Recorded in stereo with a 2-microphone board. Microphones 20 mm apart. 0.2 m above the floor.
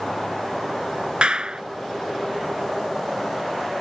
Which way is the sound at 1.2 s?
55° right (ahead or behind).